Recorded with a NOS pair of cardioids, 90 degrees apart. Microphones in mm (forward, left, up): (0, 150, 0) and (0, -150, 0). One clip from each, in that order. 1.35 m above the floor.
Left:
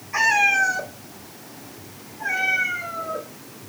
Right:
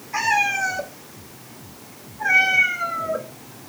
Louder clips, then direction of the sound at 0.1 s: Left 3 dB; straight ahead.